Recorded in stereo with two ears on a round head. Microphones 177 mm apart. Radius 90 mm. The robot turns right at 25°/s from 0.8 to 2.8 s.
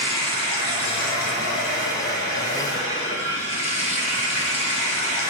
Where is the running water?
95° left, 2.5 m; by 5.3 s 145° left, 2.5 m.